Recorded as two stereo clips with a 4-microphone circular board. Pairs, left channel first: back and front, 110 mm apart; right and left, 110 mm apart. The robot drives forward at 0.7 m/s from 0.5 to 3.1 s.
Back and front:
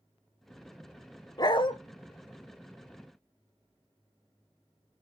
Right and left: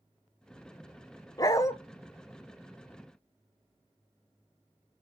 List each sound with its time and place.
1.4 s a dog barking: 140° right, 0.7 m; by 1.7 s 150° right, 0.9 m